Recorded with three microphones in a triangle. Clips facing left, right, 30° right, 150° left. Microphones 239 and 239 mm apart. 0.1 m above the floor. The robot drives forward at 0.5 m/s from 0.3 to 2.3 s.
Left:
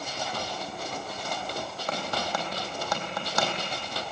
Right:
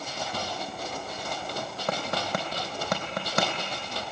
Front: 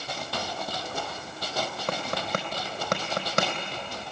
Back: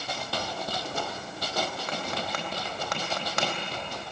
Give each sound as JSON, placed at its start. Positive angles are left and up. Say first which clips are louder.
{"t": 1.9, "sound": "tapping", "louder": "right 2 dB, front 3 dB", "azimuth_deg": -65, "distance_m": 4.0}